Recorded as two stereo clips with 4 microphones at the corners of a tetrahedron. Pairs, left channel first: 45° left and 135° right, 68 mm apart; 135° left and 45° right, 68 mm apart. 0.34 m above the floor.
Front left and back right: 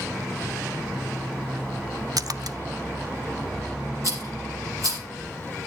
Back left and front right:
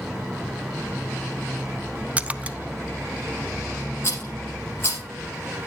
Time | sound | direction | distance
2.2 | a splash | 115° right | 0.6 m
4.0 | a rattle | 170° right | 5.5 m